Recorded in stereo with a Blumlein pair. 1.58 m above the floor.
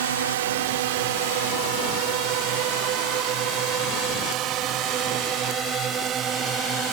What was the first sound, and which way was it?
A drone, 60° right.